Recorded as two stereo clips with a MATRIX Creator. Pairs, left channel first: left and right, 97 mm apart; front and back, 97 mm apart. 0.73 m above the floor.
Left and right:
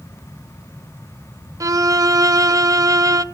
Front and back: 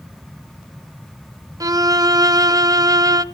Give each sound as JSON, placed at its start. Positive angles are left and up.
{"t": 1.6, "sound": "a violin", "azimuth_deg": -135, "distance_m": 0.6}